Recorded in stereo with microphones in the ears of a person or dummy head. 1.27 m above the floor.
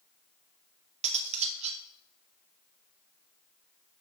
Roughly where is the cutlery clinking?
Right.